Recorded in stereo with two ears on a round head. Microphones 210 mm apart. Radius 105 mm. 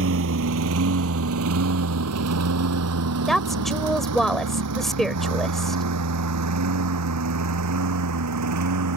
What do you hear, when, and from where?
0.0 s a lawn mower: 65° right (ahead or behind); by 9.0 s 85° right
3.3 s a woman speaking: centre (ahead or behind)